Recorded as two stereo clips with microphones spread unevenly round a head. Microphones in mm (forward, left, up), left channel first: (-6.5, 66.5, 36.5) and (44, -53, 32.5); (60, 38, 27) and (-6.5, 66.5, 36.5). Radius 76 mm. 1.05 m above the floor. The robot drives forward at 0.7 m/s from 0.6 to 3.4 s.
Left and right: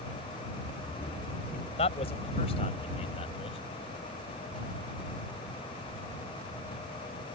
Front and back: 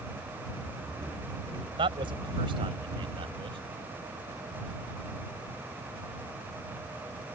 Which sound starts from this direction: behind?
A man speaking, at 1.8 s.